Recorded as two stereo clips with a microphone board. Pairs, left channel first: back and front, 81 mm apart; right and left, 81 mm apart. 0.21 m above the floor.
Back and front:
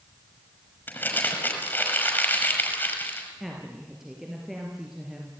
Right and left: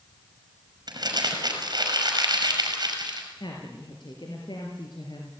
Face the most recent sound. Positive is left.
turn(degrees=-85)